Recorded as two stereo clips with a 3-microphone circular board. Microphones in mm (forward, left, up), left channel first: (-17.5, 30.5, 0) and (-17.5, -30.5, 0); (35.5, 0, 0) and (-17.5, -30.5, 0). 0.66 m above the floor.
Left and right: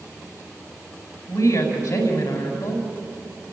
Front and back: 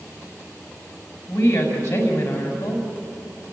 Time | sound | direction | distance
1.3 | a woman speaking | 90° left | 5 m